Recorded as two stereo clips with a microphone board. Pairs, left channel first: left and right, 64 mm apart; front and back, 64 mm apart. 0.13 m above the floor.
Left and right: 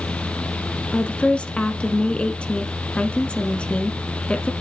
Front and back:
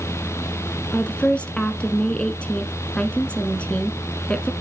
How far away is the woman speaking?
About 1.2 m.